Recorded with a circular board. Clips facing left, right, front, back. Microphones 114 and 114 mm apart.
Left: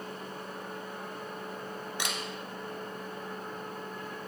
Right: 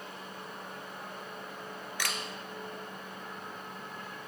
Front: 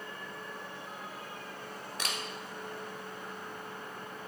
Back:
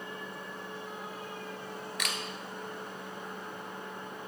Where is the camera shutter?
35° left, 0.9 m.